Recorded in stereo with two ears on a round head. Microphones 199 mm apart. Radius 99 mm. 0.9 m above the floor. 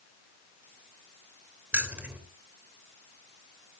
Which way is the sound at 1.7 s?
5° right (ahead or behind).